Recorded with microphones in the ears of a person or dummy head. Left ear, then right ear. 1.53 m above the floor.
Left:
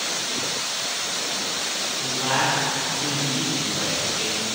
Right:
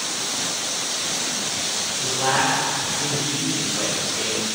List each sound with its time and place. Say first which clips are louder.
2.0 s a man speaking: right 2 dB; 30° right (ahead or behind), 3.5 m